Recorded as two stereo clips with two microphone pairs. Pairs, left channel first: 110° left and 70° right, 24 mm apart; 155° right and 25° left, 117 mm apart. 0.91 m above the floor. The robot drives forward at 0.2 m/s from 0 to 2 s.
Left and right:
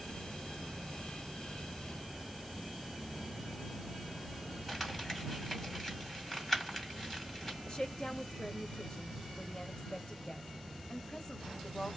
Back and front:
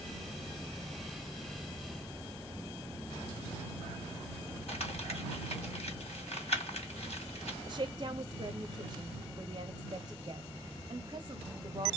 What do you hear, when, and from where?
4.7 s crumpling: 175° right, 2.0 m
7.7 s a woman speaking: 65° left, 0.6 m